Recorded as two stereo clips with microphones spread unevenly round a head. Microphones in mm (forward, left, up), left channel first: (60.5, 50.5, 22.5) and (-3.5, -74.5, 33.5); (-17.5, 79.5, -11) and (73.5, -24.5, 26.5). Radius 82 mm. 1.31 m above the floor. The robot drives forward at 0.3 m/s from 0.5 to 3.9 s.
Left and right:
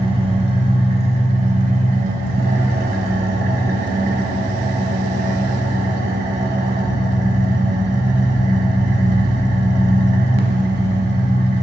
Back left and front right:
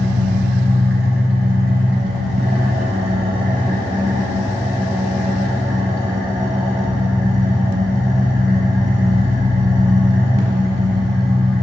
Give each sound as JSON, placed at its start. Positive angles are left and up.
{"t": 0.0, "sound": "an engine running", "azimuth_deg": -70, "distance_m": 1.2}